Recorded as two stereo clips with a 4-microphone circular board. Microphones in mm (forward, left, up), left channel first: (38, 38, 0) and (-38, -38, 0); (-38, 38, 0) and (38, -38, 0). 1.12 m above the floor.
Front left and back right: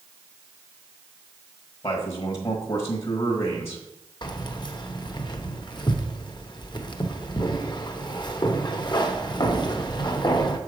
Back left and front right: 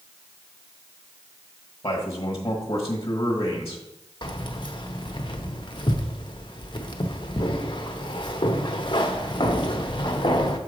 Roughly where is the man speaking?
Left.